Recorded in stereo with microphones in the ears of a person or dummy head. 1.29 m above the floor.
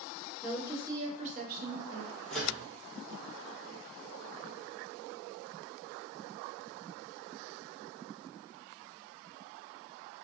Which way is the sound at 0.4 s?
Centre (ahead or behind).